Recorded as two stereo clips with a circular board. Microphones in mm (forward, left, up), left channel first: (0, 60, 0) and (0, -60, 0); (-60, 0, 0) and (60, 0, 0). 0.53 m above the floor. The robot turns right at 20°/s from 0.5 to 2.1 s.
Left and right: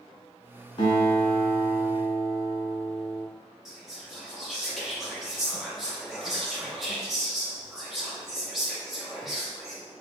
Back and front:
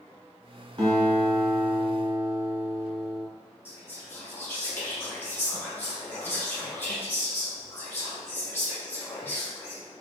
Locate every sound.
0.8 s a guitar: 55° left, 2.0 m; by 3.2 s 80° left, 2.0 m
3.6 s whispering: 170° right, 0.6 m